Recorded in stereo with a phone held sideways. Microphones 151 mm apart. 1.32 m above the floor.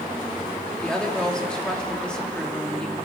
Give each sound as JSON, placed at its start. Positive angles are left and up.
{"t": 0.8, "sound": "a woman speaking", "side_deg": 5, "distance_m": 2.5}